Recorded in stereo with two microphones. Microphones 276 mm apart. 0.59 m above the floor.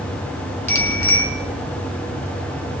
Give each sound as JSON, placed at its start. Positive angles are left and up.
{"t": 0.7, "sound": "a bicycle bell", "side_deg": 85, "distance_m": 5.5}